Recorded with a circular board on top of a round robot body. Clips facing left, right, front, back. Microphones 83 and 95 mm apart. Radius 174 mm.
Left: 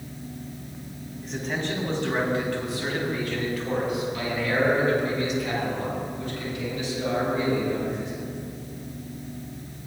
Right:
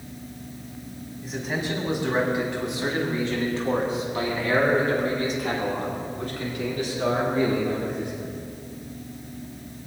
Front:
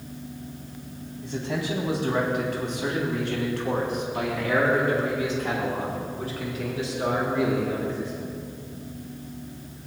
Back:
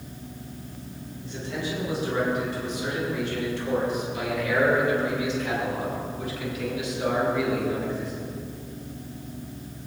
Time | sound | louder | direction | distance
1.2 | a man speaking | right 1 dB, front 3 dB | 5° right | 5 m